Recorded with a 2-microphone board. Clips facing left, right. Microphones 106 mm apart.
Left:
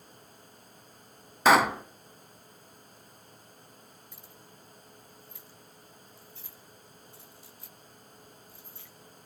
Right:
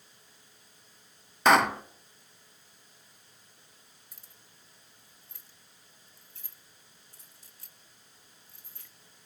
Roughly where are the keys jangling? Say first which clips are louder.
Left 8 dB; right.